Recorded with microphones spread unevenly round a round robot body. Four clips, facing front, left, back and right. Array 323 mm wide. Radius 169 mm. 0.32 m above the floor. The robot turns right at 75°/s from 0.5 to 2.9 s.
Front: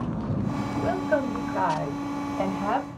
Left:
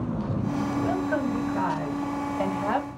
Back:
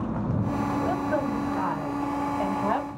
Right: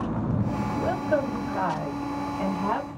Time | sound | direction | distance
0.8 | a woman speaking | 90° right | 2 m